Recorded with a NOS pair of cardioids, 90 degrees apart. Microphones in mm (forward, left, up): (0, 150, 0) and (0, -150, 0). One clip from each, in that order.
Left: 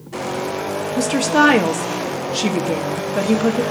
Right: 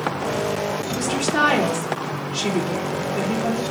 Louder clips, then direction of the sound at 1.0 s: Left 5 dB; 40° left.